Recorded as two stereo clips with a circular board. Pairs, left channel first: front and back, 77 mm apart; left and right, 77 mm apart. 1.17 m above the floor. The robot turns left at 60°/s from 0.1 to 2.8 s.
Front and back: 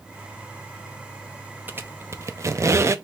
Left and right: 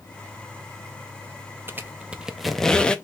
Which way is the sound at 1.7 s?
130° right.